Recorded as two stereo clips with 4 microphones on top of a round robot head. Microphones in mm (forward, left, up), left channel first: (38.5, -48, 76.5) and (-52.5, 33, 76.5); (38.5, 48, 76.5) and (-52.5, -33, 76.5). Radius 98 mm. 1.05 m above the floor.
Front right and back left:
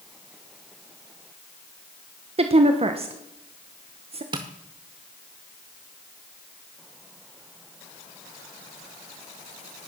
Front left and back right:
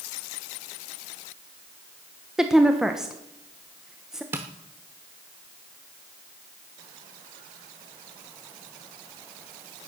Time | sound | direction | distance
2.4 | a woman speaking | 135° left | 1.1 m
4.3 | tapping | 165° left | 0.7 m